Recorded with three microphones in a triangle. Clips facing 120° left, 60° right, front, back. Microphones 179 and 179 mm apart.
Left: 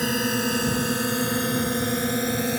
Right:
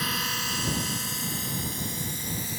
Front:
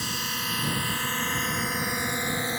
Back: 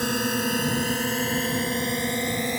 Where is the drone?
155° left; by 2.6 s 105° left.